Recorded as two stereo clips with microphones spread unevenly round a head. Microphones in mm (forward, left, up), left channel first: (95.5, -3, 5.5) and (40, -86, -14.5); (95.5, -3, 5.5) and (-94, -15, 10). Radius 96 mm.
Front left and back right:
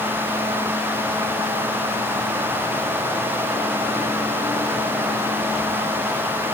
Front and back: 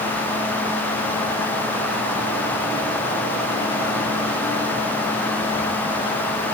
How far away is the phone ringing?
No phone ringing in this recording.